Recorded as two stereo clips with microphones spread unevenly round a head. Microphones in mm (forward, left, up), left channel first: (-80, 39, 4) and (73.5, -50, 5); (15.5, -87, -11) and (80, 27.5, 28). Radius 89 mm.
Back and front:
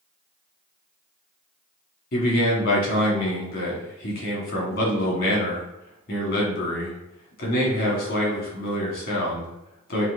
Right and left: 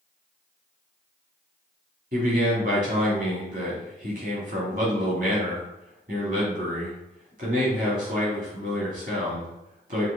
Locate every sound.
2.1 s a man speaking: 110° left, 1.9 m